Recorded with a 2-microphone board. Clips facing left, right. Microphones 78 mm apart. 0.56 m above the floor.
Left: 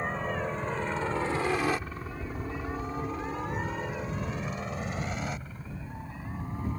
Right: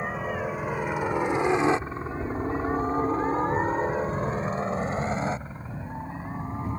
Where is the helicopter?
5° right (ahead or behind); by 6.8 s 25° right (ahead or behind).